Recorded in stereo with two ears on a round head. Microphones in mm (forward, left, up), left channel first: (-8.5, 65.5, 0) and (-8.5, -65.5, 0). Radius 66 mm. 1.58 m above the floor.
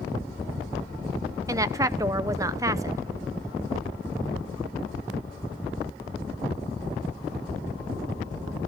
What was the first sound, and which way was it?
A woman speaking, 20° right (ahead or behind).